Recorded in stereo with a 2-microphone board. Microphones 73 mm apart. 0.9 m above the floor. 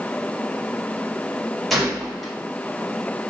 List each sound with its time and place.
1.7 s a gunshot: centre (ahead or behind), 1.0 m